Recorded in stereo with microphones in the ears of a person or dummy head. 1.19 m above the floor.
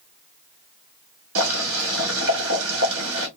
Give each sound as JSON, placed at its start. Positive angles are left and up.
{"t": 1.4, "sound": "boiling", "side_deg": -60, "distance_m": 1.2}